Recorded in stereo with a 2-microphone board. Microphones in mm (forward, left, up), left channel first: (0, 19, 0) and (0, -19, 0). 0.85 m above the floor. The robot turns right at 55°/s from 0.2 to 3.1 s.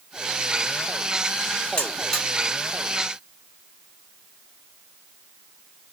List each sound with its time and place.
1.8 s a buzzer: 35° left (ahead or behind), 1.9 m; by 2.2 s 15° left (ahead or behind), 1.9 m